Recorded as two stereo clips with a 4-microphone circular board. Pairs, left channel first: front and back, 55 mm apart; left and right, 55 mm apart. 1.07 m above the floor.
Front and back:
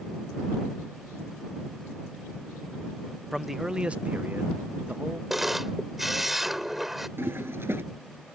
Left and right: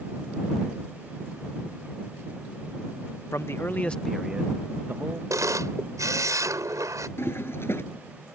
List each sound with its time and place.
3.3 s a man speaking: 90° left; by 5.2 s 125° right
5.3 s a camera shutter: 95° right
7.2 s a toilet flushing: 135° left